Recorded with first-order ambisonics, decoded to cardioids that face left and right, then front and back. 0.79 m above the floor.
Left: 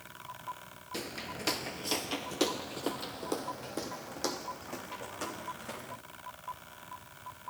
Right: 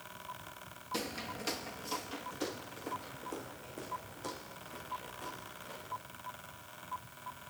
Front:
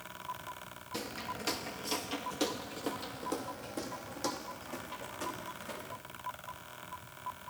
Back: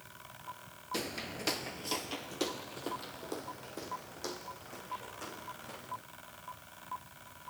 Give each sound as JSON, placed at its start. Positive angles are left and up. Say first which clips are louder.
{"t": 0.9, "sound": "footsteps", "louder": "even, back 1 dB", "azimuth_deg": -170, "distance_m": 0.8}